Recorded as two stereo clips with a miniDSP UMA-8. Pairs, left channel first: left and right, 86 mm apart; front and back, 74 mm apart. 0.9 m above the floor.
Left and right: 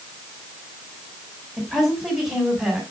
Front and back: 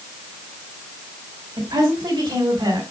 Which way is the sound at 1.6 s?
Straight behind.